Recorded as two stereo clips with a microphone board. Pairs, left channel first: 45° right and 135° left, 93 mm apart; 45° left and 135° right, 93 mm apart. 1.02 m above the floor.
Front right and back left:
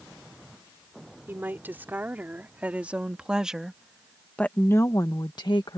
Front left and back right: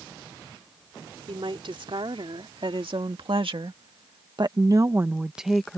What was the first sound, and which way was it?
A woman speaking, 155° right.